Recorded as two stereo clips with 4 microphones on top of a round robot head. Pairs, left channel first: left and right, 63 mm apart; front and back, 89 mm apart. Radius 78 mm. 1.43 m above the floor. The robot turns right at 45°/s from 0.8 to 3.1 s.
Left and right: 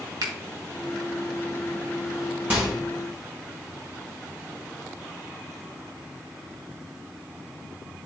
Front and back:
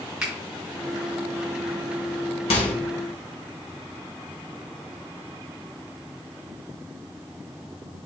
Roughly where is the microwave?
Ahead.